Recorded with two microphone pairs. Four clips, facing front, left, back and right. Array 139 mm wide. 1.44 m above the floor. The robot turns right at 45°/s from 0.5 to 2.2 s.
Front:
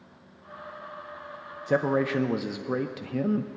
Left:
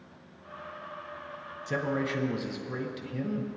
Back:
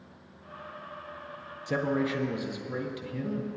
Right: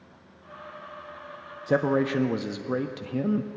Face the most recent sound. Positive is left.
turn(degrees=-45)